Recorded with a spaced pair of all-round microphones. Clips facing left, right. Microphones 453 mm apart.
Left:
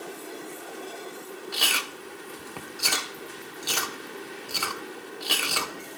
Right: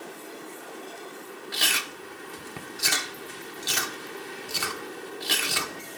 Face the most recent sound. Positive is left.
turn(degrees=-35)  # may be behind; listen again after turning